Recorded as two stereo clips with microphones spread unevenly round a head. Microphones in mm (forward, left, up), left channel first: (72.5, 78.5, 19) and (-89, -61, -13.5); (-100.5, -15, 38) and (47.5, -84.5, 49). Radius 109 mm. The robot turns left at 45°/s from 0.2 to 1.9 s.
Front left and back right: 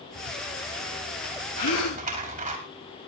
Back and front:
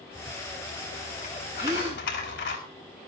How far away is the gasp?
About 3 m.